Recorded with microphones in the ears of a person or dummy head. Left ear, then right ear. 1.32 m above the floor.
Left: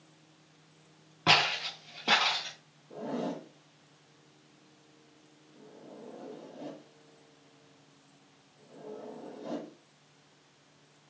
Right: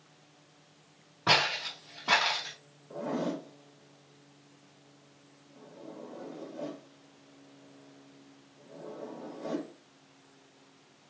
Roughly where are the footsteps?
Left.